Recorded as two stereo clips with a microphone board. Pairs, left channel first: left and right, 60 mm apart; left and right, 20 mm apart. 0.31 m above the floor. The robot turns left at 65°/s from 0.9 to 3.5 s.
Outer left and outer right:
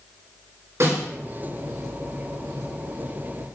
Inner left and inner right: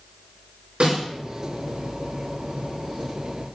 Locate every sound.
0.8 s a snare drum: 55° right (ahead or behind), 4 m; by 1.0 s 60° right (ahead or behind), 4 m